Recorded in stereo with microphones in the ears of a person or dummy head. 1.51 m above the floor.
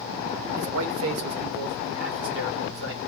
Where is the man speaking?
75° right (ahead or behind), 0.8 m; by 3.0 s 70° right (ahead or behind), 2.0 m.